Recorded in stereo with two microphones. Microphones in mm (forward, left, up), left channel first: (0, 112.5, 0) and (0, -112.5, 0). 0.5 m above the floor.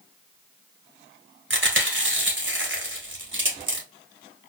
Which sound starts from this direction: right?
Chewing, at 1.5 s.